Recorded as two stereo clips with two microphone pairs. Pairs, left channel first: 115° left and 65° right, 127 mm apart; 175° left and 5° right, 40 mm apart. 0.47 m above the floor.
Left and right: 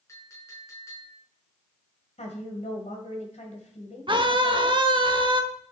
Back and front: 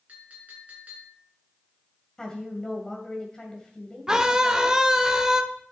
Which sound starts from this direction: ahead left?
A clink, at 0.1 s.